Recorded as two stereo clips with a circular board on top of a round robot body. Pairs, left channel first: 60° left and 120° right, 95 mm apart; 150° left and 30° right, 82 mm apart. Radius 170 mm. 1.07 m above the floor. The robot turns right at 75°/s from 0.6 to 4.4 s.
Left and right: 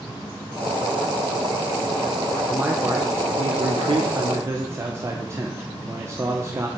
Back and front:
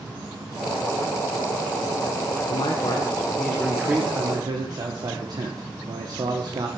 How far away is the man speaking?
About 1.2 m.